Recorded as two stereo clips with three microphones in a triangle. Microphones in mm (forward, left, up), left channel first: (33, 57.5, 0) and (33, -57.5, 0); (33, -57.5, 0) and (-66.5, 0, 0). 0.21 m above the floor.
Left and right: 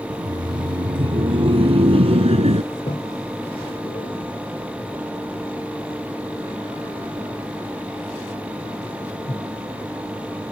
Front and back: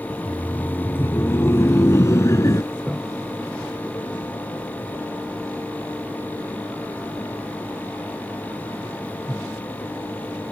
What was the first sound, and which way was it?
Laughter, 105° right.